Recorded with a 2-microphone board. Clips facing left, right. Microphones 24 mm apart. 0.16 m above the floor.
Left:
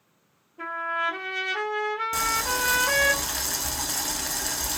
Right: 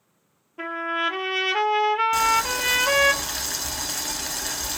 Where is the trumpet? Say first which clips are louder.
Right 2 dB; 70° right (ahead or behind), 0.5 m.